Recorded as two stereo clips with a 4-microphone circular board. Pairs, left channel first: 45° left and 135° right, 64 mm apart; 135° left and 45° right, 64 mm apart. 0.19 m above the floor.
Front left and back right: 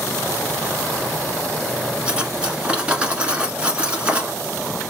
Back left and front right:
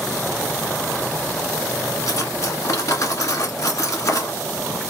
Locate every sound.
2.1 s cutlery clinking: 155° left, 1.2 m